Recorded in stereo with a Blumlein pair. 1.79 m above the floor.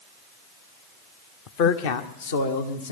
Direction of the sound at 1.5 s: 40° left.